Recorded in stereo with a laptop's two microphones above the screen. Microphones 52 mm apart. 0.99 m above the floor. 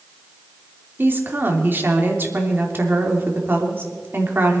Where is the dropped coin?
I don't hear a dropped coin.